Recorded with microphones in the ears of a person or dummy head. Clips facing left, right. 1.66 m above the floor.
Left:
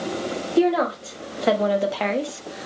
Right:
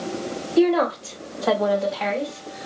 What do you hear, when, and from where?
0.6 s a woman speaking: centre (ahead or behind), 0.9 m; by 2.7 s 80° left, 0.7 m